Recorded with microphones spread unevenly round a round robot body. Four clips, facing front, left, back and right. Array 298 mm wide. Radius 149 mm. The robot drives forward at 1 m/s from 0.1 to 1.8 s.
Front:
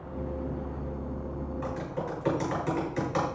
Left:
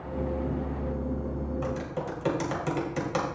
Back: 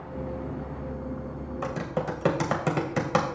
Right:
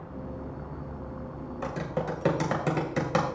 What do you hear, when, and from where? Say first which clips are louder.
1.6 s typing on a keyboard: right 1 dB, back 6 dB; 155° right, 2.0 m